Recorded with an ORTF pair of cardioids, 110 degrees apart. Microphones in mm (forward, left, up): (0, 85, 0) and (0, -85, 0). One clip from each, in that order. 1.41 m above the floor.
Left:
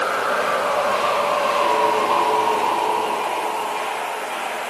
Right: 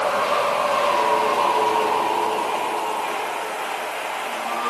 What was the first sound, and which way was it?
Only background noise.